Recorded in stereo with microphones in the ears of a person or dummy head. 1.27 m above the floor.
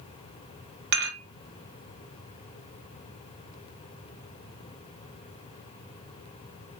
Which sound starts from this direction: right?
Dishes clattering, at 0.9 s.